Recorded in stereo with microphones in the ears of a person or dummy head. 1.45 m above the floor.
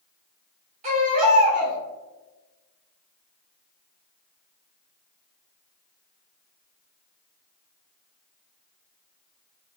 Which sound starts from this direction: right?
A baby crying, at 0.8 s.